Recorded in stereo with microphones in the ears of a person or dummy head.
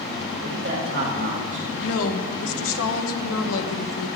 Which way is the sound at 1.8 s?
80° left.